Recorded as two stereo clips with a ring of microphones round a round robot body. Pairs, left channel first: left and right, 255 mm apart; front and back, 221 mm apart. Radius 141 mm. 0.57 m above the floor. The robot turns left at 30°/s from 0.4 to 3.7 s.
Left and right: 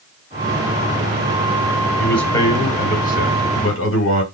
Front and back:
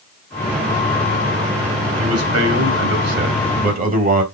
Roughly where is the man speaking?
Behind.